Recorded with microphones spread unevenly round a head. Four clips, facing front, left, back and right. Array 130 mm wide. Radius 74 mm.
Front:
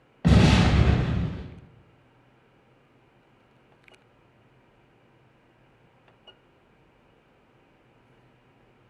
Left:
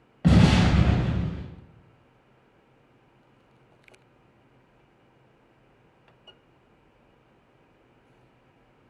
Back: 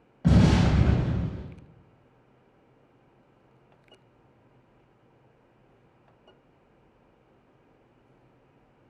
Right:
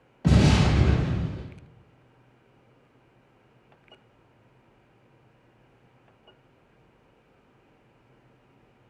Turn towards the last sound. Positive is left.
turn(degrees=40)